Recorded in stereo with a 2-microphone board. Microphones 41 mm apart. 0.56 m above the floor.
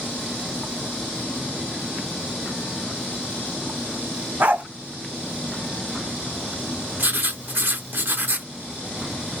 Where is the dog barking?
50° right (ahead or behind), 0.7 m.